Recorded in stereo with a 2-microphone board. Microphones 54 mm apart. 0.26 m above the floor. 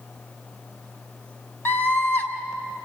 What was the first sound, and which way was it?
A scream, 45° left (ahead or behind).